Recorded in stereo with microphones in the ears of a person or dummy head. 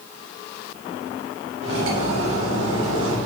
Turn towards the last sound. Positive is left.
turn(degrees=-85)